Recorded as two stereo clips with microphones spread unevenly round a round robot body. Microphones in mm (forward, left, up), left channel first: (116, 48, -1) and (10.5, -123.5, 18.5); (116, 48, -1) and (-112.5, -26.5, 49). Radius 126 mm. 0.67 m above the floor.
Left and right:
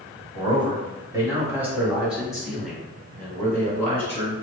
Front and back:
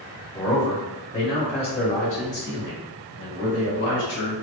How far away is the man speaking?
About 1.9 m.